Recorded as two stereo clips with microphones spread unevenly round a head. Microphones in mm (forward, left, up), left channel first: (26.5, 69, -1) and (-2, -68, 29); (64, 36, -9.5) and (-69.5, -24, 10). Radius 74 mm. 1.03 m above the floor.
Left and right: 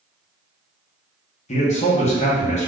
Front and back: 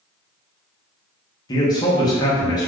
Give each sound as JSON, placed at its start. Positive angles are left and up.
{"t": 1.5, "sound": "a man speaking", "azimuth_deg": 80, "distance_m": 0.9}